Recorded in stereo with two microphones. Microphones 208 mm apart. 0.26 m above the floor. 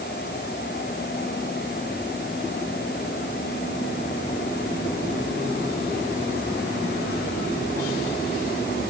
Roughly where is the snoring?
I don't hear snoring.